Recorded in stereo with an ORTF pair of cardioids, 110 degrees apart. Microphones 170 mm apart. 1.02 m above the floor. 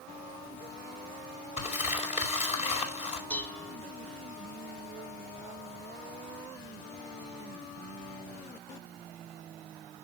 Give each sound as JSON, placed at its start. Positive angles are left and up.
{"t": 1.6, "sound": "crumpling", "azimuth_deg": 40, "distance_m": 4.0}
{"t": 3.3, "sound": "dishes clattering", "azimuth_deg": 10, "distance_m": 1.4}